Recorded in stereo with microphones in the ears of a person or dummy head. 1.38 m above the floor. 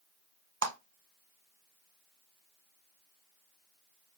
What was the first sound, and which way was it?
A clap, 80° right.